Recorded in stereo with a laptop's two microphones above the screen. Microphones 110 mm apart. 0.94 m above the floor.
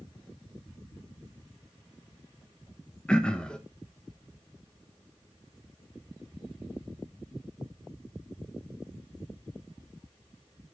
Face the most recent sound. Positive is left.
turn(degrees=5)  # may be behind; listen again after turning